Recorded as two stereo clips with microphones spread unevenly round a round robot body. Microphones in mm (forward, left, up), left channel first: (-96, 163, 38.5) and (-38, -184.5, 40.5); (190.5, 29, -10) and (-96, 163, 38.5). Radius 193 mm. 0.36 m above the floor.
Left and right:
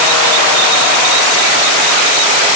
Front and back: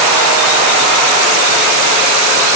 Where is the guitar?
No guitar in this recording.